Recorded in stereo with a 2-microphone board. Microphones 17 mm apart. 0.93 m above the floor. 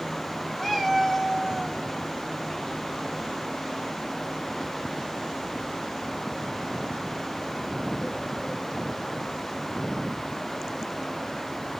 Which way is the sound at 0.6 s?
5° left (ahead or behind).